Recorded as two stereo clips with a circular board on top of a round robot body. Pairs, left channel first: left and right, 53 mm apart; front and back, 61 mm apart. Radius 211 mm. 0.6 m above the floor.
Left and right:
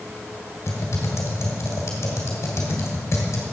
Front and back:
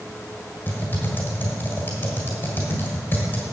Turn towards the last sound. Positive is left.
turn(degrees=60)